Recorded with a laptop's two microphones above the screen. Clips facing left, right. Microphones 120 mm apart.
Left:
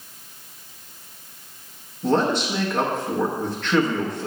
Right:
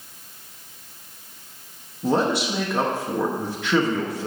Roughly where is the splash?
I don't hear a splash.